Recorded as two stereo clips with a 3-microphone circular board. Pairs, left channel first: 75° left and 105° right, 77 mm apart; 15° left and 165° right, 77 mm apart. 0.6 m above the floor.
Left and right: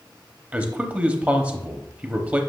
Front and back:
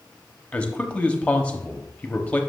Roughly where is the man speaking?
Ahead right.